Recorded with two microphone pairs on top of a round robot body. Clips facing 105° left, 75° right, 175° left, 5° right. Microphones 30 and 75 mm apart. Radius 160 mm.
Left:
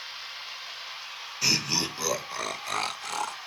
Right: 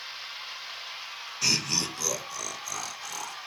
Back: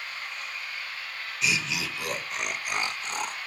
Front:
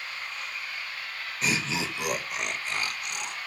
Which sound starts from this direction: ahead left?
Laughter, at 1.4 s.